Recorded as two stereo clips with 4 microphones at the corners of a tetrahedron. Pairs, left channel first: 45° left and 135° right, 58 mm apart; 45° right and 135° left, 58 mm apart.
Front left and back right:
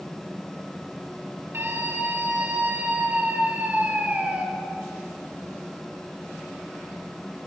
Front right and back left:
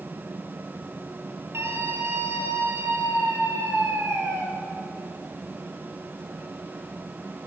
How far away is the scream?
About 5 m.